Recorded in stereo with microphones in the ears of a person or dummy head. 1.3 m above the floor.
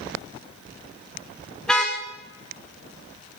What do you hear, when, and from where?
1.6 s a car horn: 10° left (ahead or behind), 2 m